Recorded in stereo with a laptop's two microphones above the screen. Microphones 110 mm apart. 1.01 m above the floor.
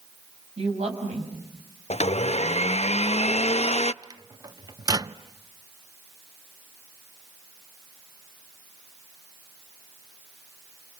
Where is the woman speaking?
70° right (ahead or behind), 6 m.